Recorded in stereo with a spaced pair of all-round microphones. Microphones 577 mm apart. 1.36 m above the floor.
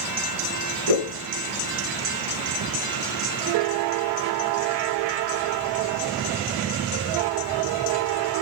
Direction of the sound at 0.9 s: 70° right (ahead or behind).